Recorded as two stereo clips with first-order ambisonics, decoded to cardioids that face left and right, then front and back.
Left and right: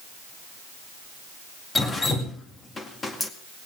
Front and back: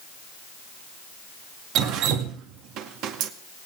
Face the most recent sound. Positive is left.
turn(degrees=160)